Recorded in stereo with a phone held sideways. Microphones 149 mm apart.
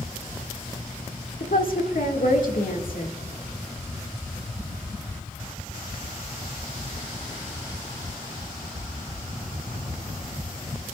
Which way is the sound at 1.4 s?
70° left (ahead or behind).